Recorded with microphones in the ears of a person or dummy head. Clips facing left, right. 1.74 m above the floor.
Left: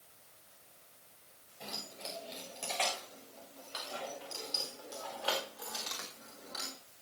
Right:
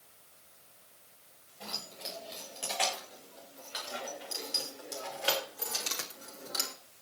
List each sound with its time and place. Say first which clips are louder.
1.6 s keys jangling: right 1 dB; 5° right (ahead or behind), 7 m; by 6.8 s 50° right (ahead or behind), 3.5 m